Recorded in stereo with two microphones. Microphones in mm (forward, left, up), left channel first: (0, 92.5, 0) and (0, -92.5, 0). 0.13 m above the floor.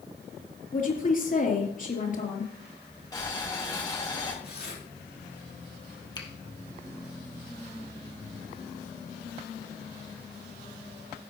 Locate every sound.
0.7 s a woman speaking: 45° left (ahead or behind), 3 m
3.1 s boiling: 20° left (ahead or behind), 5.5 m
4.4 s tearing paper: 60° left (ahead or behind), 5.5 m
6.2 s a finger snap: 25° left (ahead or behind), 2.5 m